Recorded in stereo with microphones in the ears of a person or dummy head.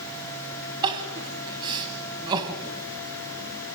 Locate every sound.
0.8 s crying: 25° right (ahead or behind), 2 m